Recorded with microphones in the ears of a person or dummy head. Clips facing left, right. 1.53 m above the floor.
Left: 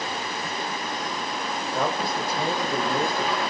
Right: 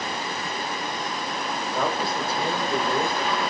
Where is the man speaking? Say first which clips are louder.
Even; 10° left (ahead or behind), 1.7 m.